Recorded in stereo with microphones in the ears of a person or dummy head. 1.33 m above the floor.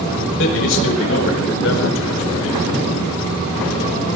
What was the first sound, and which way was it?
A man speaking, 75° left (ahead or behind).